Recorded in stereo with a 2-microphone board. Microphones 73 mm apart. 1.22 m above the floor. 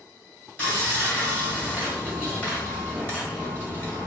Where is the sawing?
25° left (ahead or behind), 2.0 m.